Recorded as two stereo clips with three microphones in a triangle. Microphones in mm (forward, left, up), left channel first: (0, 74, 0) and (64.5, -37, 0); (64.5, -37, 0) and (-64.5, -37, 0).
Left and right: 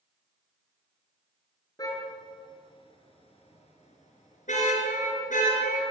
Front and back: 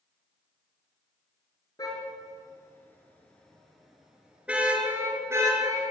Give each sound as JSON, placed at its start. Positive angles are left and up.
{"t": 1.8, "sound": "a car horn", "azimuth_deg": 60, "distance_m": 6.0}